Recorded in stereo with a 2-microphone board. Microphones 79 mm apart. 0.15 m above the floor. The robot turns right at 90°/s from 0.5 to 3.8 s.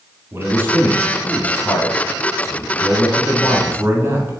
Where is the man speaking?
60° right, 1.7 m; by 4.4 s 120° right, 1.7 m.